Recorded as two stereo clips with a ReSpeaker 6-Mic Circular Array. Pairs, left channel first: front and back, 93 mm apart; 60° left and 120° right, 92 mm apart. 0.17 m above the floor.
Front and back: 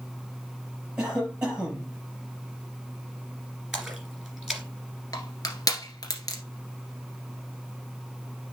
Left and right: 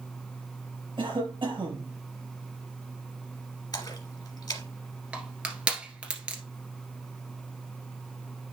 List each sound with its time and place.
1.0 s a cough: 100° right, 4.5 m
3.7 s a splash: 90° left, 1.7 m
5.1 s crushing: 45° right, 1.6 m